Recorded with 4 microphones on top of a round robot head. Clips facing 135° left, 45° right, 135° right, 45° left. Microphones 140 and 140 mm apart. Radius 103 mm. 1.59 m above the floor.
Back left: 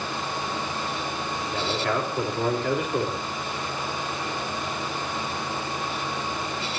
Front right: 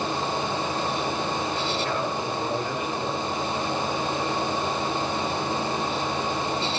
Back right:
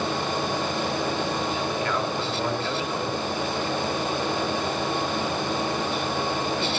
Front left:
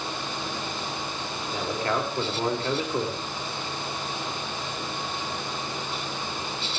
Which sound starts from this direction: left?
A man speaking, at 1.5 s.